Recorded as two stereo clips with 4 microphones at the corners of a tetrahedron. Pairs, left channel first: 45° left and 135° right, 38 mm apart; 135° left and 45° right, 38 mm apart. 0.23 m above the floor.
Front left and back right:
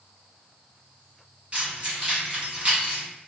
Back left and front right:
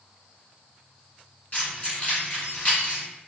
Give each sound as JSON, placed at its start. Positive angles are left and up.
{"t": 1.5, "sound": "keys jangling", "azimuth_deg": 180, "distance_m": 1.8}